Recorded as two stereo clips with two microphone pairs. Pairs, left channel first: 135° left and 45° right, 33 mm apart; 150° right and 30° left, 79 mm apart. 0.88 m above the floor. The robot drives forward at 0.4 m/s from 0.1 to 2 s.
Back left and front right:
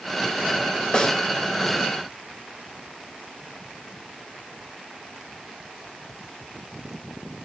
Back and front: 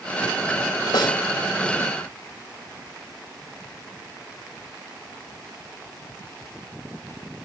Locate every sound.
0.9 s a snare drum: 160° right, 2.5 m